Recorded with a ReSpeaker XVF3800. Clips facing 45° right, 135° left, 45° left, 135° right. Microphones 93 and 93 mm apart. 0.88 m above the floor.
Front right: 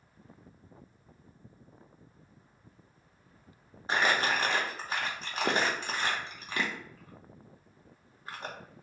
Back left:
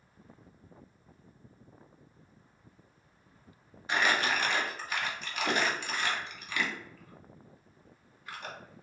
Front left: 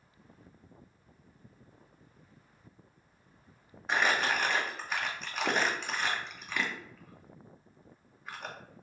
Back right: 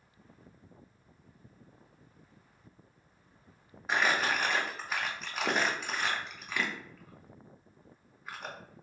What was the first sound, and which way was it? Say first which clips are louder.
Crumpling: front right 1 dB, even; 50° right.